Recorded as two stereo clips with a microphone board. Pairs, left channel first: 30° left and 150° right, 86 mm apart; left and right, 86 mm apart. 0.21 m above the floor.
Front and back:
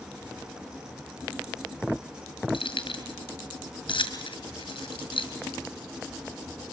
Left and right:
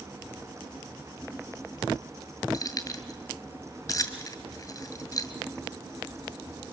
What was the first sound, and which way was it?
Keys jangling, 40° left.